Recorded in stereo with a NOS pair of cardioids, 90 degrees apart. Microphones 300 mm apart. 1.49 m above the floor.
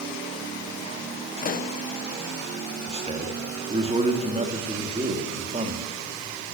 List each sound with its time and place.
1.4 s a pop: 30° left, 0.7 m
2.9 s a man speaking: 20° right, 2.5 m